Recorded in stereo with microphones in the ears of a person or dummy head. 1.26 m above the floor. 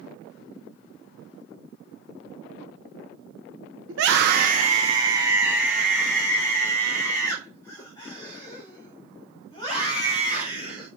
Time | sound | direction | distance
3.9 | a scream | 65° right (ahead or behind) | 0.8 m